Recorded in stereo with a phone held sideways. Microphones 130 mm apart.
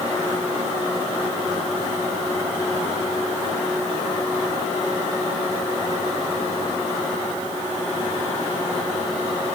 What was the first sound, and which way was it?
Only background noise.